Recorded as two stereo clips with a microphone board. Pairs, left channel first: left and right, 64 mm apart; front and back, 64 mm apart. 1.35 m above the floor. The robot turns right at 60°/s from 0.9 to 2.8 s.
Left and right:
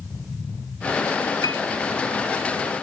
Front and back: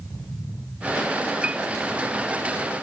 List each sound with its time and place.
1.4 s a piano: 110° left; by 1.6 s 120° left